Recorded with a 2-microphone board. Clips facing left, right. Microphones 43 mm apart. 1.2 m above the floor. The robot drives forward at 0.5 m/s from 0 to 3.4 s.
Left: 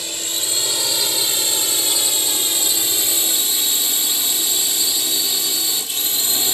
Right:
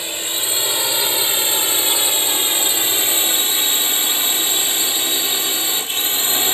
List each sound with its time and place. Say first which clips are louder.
0.0 s a drone: right 2 dB; 30° right (ahead or behind); by 6.5 s 40° right (ahead or behind)